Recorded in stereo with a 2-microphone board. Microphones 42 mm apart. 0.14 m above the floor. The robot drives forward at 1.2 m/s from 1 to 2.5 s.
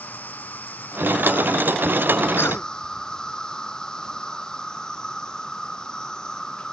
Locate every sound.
0.0 s an insect: 45° left (ahead or behind); by 6.7 s 20° left (ahead or behind)
2.4 s a cough: 70° left (ahead or behind)